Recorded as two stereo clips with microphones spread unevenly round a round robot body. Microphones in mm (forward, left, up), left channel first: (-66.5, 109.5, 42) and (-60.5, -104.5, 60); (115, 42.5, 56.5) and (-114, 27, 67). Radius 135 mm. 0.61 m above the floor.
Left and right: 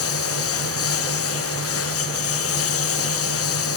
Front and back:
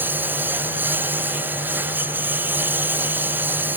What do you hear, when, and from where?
0.0 s a lawn mower: 100° left